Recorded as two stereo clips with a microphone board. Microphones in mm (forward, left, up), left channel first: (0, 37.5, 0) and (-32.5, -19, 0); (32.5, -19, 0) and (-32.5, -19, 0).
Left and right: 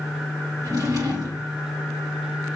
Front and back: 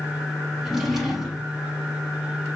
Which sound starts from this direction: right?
A drawer, at 0.6 s.